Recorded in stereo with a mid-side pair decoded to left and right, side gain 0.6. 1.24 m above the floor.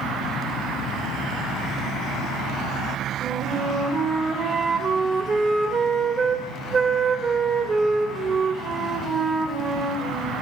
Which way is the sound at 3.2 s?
35° right.